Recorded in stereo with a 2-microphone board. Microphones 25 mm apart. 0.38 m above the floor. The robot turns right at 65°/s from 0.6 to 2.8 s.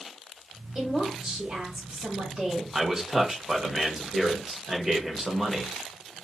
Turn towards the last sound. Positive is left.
turn(degrees=-25)  # may be behind; listen again after turning